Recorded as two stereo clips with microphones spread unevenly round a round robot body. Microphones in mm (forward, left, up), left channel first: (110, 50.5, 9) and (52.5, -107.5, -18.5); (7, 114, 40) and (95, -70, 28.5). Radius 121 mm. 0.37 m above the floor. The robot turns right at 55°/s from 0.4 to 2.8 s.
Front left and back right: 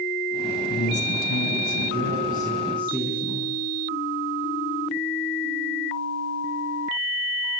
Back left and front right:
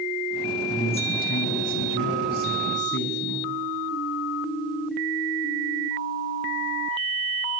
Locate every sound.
0.7 s a man speaking: 40° left, 4 m; by 3.5 s 155° left, 4 m